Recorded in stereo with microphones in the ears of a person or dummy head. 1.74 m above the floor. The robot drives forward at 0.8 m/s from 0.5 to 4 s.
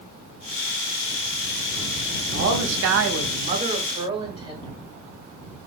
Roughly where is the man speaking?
Right.